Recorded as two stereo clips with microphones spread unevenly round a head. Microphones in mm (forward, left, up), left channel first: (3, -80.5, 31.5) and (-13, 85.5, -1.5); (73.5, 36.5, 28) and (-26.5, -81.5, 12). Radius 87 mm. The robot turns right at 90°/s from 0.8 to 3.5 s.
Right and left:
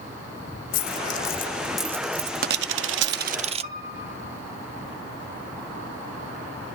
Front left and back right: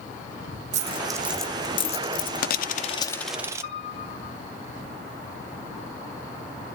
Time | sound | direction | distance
0.7 | a dropped coin | 90° right | 0.5 m
3.6 | a piano | 65° left | 9 m